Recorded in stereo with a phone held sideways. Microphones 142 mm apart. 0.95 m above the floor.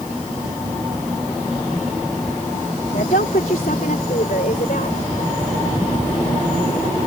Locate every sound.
2.9 s a woman speaking: 70° left (ahead or behind)